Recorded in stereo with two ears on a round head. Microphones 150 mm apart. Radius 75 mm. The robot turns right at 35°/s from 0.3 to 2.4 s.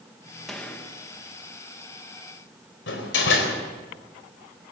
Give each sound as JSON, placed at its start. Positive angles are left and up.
{"t": 0.5, "sound": "a gunshot", "side_deg": 0, "distance_m": 1.9}
{"t": 2.9, "sound": "a door slam", "side_deg": 80, "distance_m": 4.0}